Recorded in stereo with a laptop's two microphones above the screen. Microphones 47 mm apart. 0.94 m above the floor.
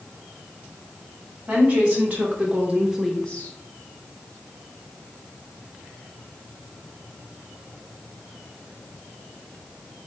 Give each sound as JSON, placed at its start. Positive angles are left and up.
{"t": 1.5, "sound": "a woman speaking", "side_deg": -45, "distance_m": 2.5}